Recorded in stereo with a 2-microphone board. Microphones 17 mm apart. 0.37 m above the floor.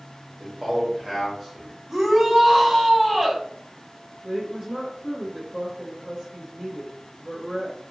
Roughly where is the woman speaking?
Right.